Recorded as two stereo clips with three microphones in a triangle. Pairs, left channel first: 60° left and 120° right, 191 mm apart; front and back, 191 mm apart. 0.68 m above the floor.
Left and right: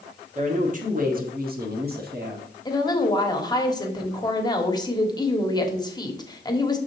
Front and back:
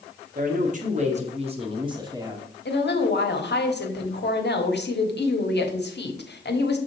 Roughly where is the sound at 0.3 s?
Behind.